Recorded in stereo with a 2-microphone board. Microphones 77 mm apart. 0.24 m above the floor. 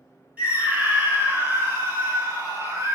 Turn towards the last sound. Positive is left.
turn(degrees=-45)  # may be behind; listen again after turning